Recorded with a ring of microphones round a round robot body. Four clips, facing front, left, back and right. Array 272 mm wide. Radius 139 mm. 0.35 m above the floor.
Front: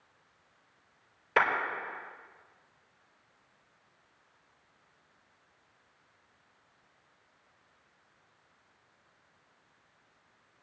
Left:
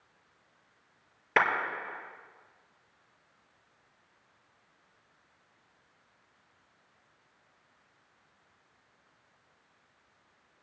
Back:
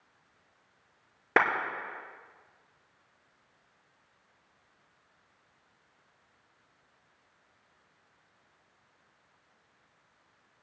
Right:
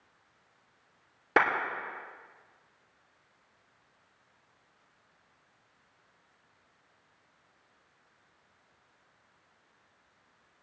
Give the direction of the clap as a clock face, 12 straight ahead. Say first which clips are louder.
Right 1 dB, back 2 dB; 5 o'clock.